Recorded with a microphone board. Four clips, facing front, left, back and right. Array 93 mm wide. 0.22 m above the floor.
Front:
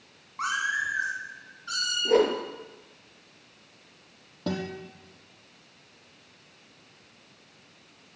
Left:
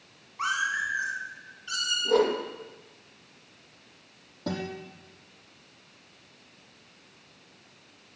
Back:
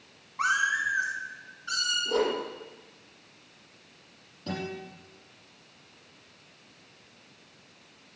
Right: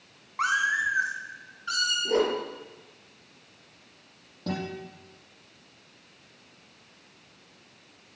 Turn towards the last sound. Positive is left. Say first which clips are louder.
# even, front 3 dB
turn(degrees=5)